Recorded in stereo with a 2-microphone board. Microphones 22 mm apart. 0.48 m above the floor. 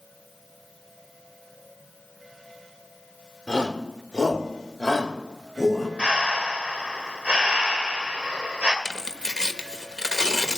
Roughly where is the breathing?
Right.